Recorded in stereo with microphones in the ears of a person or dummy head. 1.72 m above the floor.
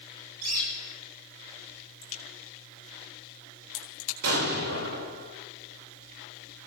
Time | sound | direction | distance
0.4 | a bird | 85° right | 10 m
2.0 | a crack | 45° left (ahead or behind) | 4.5 m
4.2 | an explosion | 75° right (ahead or behind) | 2.5 m